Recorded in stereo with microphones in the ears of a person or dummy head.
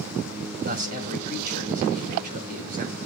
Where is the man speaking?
50° right (ahead or behind), 5.5 m.